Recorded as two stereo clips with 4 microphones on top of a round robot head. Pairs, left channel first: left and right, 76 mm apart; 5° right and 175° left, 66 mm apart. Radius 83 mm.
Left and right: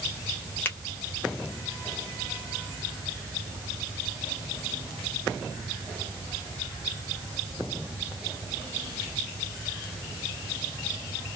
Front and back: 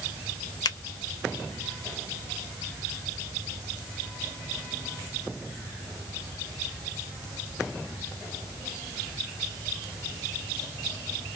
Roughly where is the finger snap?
Ahead.